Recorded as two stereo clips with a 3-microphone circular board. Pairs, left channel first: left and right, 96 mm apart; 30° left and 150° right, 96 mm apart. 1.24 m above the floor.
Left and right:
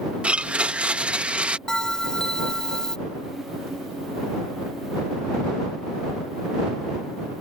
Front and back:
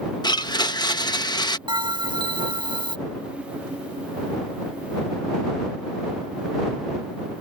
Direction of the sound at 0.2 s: 10° right.